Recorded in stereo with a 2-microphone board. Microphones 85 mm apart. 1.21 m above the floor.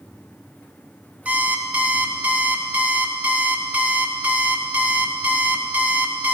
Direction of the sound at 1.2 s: 15° right (ahead or behind).